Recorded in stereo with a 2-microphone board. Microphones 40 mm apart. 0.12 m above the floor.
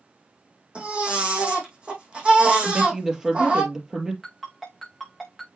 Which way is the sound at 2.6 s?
10° right (ahead or behind).